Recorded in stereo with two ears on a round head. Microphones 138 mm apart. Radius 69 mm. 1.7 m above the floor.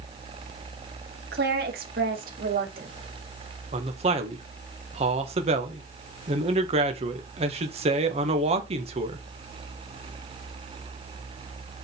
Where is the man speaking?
40° right (ahead or behind), 1.8 m.